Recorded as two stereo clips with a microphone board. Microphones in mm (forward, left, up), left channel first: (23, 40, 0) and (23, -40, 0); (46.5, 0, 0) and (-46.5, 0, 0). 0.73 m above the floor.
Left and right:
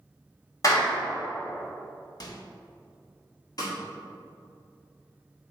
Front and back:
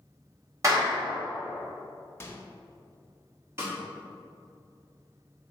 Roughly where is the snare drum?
Behind left.